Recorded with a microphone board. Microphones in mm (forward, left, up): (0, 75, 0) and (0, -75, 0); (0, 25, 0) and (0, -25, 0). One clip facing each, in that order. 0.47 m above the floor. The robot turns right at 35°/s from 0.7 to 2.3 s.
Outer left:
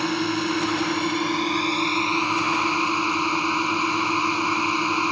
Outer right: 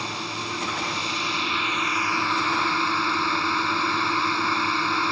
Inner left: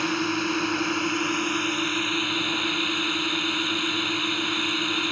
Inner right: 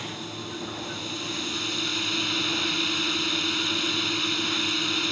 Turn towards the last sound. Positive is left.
turn(degrees=165)